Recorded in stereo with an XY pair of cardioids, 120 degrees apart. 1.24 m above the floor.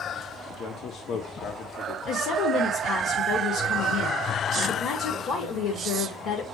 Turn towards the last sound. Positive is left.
turn(degrees=65)